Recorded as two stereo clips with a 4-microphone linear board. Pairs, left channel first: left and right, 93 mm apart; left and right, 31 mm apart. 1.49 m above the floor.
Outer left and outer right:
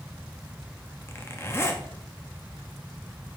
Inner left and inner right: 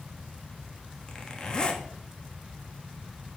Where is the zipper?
30° left (ahead or behind), 1.0 m.